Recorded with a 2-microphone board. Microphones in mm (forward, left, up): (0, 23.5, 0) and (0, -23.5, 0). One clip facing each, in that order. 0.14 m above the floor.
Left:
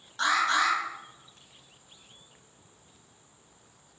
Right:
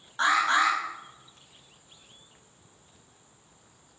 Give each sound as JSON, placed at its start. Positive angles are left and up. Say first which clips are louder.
{"t": 0.2, "sound": "an alarm", "louder": "right 2 dB", "side_deg": -25, "distance_m": 6.0}